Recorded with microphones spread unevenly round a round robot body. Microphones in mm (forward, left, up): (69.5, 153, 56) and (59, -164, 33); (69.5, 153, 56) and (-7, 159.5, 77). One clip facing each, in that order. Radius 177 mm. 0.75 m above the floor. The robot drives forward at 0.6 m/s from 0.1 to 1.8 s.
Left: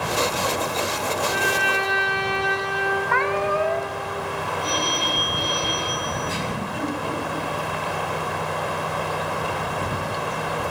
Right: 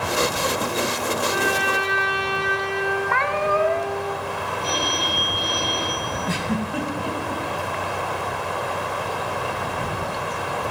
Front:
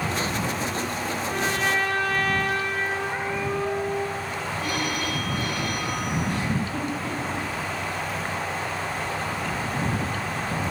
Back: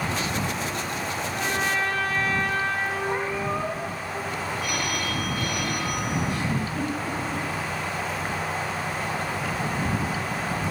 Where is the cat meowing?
120° right, 0.9 m.